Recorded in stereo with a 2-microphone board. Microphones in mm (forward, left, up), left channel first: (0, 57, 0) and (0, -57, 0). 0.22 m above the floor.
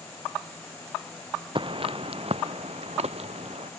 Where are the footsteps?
50° right (ahead or behind); by 3.7 s 65° right (ahead or behind).